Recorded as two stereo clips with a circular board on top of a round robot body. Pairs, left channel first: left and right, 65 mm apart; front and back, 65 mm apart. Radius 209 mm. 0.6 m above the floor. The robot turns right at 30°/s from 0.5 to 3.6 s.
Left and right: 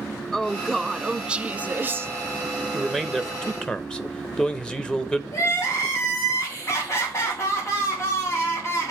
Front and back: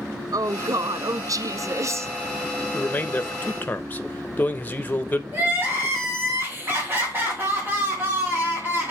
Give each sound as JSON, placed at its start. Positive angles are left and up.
{"t": 0.3, "sound": "a woman speaking", "azimuth_deg": 170, "distance_m": 0.8}
{"t": 2.7, "sound": "a man speaking", "azimuth_deg": 0, "distance_m": 1.0}
{"t": 5.3, "sound": "crying", "azimuth_deg": 125, "distance_m": 3.0}